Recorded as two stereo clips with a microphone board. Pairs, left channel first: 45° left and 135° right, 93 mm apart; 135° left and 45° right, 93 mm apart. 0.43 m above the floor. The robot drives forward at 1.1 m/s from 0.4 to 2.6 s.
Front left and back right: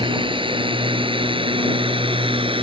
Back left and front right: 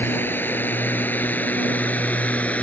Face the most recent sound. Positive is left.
turn(degrees=-150)